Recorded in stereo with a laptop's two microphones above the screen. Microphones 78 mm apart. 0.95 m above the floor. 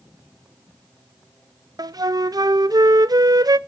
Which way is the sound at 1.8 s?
60° right (ahead or behind).